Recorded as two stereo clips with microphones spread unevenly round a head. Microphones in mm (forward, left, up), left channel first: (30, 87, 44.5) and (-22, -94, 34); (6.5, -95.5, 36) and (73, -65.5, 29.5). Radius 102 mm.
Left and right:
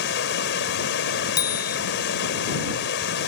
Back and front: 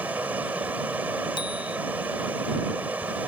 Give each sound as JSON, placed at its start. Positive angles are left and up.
{"t": 0.0, "sound": "running water", "azimuth_deg": 110}
{"t": 1.4, "sound": "a bicycle bell", "azimuth_deg": 145}